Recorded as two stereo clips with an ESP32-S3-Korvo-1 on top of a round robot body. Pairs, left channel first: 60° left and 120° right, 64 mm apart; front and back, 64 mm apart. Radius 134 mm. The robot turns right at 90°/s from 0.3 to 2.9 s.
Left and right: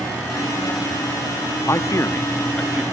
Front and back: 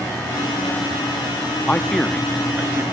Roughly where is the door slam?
No door slam in this recording.